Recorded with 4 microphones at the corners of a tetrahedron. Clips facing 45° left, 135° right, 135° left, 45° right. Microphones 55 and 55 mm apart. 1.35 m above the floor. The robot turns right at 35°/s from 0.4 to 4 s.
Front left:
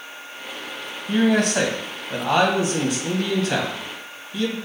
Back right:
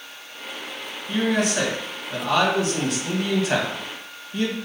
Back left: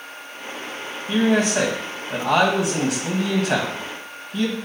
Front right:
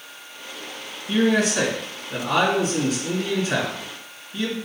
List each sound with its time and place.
1.1 s a man speaking: 70° left, 1.5 m; by 4.5 s 170° left, 1.5 m